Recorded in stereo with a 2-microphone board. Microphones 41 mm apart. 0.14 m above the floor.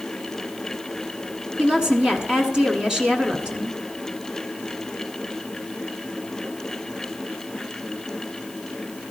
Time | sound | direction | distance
1.6 | a woman speaking | 15° right (ahead or behind) | 1.1 m